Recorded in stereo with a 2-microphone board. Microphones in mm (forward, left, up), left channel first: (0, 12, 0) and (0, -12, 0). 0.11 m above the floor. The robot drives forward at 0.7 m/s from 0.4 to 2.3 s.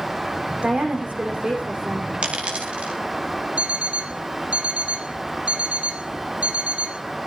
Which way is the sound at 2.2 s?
55° right (ahead or behind).